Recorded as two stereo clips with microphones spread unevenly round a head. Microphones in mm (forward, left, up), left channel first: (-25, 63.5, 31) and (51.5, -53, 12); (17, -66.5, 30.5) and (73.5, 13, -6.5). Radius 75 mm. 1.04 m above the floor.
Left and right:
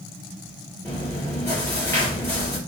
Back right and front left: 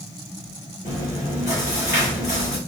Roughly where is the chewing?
Behind.